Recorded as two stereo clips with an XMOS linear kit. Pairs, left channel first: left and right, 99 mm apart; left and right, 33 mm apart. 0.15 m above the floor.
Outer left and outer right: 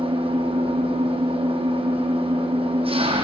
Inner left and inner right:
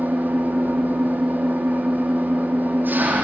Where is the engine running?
75° right (ahead or behind), 5 m.